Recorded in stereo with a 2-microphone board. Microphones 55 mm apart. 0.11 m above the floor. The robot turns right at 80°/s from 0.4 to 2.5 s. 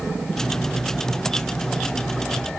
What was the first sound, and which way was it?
Only background noise.